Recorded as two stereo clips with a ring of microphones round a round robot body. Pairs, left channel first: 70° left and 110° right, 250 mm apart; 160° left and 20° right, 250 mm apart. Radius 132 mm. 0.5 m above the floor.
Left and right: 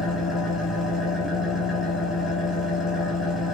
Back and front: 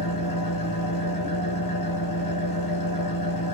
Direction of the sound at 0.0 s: 160° left.